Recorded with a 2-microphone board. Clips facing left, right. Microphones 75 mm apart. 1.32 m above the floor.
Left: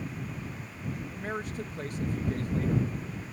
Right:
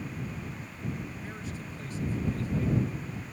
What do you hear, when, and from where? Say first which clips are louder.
1.1 s a man speaking: left 5 dB; 55° left (ahead or behind)